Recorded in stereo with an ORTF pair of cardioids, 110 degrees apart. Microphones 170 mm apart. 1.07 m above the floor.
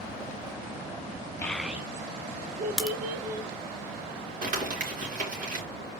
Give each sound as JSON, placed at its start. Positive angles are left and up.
{"t": 1.4, "sound": "a child speaking", "azimuth_deg": 10, "distance_m": 0.7}
{"t": 2.8, "sound": "a crack", "azimuth_deg": 0, "distance_m": 1.2}
{"t": 4.4, "sound": "crumpling", "azimuth_deg": -55, "distance_m": 3.5}